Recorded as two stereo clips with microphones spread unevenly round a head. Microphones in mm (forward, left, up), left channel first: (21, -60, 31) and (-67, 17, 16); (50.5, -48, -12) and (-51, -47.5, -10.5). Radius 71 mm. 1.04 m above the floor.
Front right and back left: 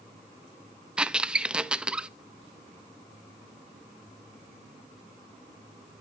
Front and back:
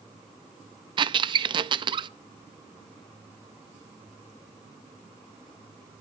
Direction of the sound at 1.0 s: 135° right.